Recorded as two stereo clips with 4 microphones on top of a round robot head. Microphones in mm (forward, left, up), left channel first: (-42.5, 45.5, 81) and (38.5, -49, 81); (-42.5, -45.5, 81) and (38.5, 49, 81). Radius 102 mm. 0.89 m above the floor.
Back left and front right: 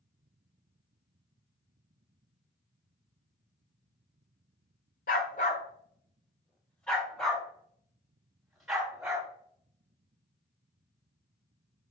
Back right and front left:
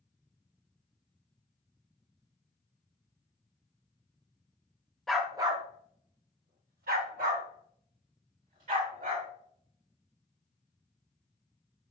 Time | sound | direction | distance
5.1 | a dog barking | 140° left | 0.8 m